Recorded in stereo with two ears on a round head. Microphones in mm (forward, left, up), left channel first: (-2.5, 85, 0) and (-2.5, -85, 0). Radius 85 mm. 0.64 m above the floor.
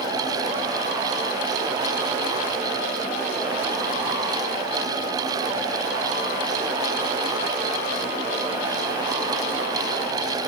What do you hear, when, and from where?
Only background noise.